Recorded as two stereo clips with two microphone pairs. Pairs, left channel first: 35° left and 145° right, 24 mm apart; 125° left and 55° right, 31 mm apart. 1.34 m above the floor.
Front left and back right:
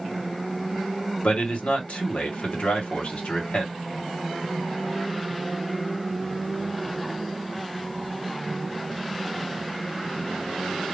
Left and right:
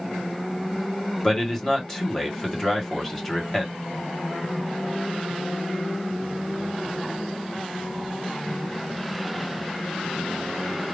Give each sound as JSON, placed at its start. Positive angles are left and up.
{"t": 1.2, "sound": "a man speaking", "azimuth_deg": 50, "distance_m": 1.5}